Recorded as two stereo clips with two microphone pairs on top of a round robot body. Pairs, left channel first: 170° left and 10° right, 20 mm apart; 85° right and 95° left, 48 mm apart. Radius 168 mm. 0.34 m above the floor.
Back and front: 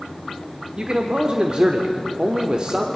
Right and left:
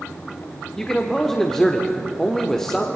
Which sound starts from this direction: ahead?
A man speaking, at 0.8 s.